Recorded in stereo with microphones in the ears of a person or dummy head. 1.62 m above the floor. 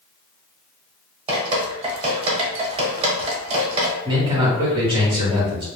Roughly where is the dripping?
Right.